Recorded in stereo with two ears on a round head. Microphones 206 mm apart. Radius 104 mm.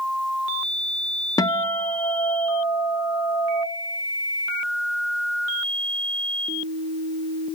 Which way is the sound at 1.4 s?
15° left (ahead or behind).